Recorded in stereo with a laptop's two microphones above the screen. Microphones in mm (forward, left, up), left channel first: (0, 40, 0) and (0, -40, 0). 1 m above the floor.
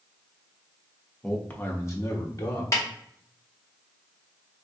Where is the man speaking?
10° left (ahead or behind), 0.6 m; by 2.6 s 50° left (ahead or behind), 1.0 m.